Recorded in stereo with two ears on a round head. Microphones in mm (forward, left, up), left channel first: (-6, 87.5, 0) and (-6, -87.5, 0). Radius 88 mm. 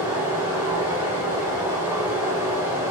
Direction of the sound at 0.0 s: 10° right (ahead or behind).